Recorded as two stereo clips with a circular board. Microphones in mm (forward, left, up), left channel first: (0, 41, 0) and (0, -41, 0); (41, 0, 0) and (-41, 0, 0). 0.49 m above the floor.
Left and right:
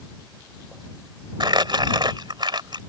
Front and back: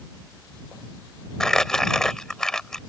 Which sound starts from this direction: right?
Crumpling, at 1.4 s.